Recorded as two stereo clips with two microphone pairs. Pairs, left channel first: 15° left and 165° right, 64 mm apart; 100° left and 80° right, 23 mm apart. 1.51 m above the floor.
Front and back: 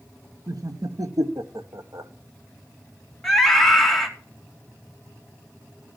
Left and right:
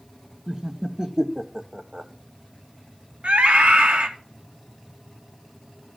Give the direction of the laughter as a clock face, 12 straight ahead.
5 o'clock.